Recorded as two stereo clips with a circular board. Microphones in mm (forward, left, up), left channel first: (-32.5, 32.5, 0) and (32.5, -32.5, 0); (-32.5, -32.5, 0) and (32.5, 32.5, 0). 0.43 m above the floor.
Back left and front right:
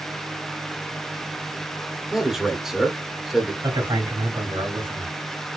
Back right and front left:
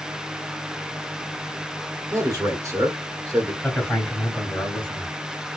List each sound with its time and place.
2.1 s a man speaking: 40° left, 1.2 m
3.6 s a man speaking: 60° right, 2.5 m